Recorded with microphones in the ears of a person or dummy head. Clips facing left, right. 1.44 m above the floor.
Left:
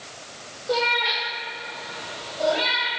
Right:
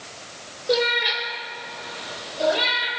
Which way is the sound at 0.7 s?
25° right (ahead or behind).